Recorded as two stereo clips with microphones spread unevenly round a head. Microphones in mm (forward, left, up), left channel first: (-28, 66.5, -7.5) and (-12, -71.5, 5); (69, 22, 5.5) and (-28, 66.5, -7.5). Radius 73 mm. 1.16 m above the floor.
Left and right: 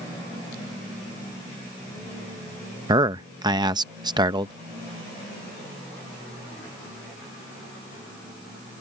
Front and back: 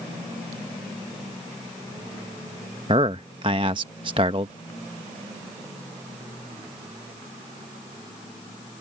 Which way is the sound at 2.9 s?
145° right.